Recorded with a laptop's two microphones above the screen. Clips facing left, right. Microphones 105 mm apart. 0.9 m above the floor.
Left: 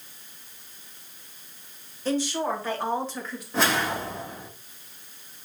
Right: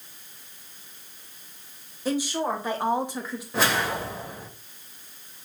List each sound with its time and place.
2.0 s a woman speaking: 10° right (ahead or behind), 1.2 m
3.5 s a whoosh: 5° right (ahead or behind), 1.2 m